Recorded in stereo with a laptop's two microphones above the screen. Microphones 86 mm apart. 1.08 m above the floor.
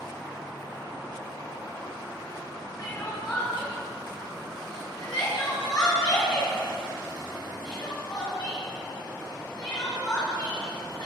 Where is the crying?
50° left (ahead or behind), 5 m.